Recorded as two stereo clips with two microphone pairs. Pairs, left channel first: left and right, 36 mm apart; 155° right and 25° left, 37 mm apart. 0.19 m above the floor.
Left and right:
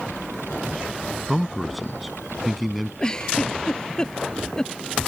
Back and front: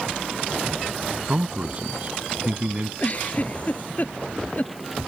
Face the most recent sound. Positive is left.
turn(degrees=160)